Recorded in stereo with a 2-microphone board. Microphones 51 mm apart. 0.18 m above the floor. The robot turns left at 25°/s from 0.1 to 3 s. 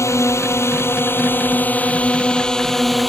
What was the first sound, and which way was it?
A drone, 75° left.